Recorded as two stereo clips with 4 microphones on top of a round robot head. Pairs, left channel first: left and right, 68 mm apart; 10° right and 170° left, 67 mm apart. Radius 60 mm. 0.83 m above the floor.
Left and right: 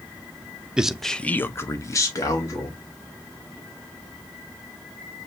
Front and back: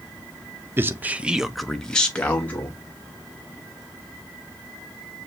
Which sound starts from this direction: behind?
A man speaking, at 0.8 s.